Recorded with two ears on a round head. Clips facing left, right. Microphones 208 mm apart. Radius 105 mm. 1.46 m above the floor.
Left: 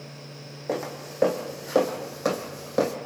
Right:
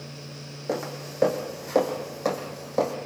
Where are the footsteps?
5° right (ahead or behind), 3 m; by 3.0 s 20° left (ahead or behind), 2.5 m.